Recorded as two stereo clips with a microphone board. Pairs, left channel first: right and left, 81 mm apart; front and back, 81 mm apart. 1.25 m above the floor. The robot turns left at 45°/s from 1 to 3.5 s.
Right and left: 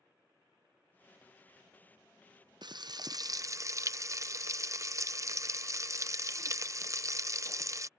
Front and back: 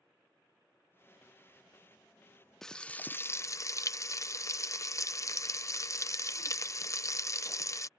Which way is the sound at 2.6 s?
85° left.